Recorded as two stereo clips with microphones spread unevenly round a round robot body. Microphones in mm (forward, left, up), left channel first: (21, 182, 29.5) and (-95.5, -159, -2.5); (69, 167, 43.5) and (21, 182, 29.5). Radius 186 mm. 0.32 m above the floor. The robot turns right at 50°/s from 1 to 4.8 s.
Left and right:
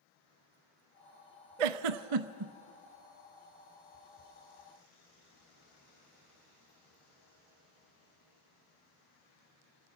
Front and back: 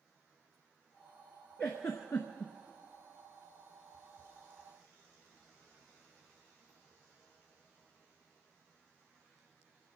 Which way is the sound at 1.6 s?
100° right.